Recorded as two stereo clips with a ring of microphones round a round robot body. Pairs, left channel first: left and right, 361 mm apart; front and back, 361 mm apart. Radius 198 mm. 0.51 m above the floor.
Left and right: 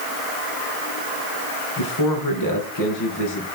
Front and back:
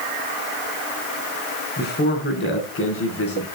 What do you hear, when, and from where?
1.8 s a man speaking: 65° left, 5 m; by 3.5 s 50° left, 5 m